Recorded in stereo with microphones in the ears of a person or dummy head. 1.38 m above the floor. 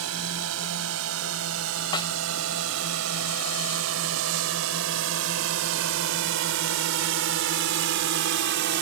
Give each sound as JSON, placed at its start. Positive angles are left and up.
{"t": 0.0, "sound": "a drone", "side_deg": -80}
{"t": 1.9, "sound": "a snare drum", "side_deg": 30}